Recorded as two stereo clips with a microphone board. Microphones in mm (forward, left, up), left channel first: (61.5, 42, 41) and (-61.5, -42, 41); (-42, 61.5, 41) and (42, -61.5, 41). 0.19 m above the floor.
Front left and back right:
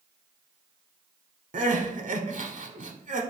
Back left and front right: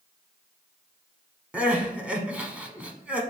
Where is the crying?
135° right, 0.6 m.